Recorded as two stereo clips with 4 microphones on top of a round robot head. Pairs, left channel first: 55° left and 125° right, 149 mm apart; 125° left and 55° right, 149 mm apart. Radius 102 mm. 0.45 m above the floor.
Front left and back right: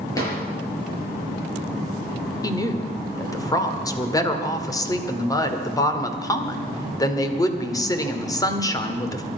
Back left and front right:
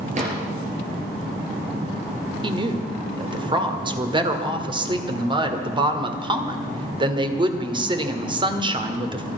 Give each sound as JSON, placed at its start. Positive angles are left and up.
{"t": 0.1, "sound": "a drawer", "azimuth_deg": -10, "distance_m": 6.5}
{"t": 2.4, "sound": "a woman speaking", "azimuth_deg": -5, "distance_m": 1.8}